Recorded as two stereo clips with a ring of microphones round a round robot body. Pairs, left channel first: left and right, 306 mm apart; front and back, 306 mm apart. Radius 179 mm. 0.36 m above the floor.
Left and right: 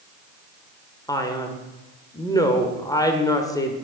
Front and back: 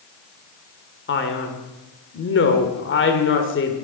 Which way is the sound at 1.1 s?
15° left.